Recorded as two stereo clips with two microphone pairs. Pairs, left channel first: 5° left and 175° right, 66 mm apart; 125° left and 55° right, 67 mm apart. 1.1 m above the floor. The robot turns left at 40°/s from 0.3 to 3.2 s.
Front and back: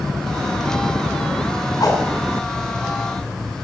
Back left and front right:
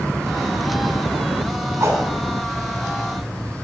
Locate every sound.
1.8 s a whoosh: 10° right, 4.5 m; by 2.0 s 15° right, 4.5 m